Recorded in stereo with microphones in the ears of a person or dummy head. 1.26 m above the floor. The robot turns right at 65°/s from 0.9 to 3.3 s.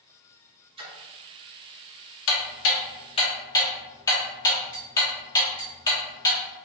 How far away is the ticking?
About 0.9 m.